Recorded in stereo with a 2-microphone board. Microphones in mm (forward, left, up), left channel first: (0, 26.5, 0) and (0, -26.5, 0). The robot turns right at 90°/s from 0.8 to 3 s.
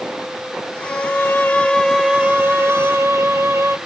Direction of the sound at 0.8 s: 80° left.